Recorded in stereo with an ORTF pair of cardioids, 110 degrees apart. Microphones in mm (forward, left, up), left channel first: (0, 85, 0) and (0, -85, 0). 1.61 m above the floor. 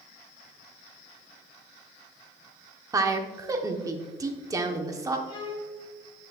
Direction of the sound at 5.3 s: 30° left.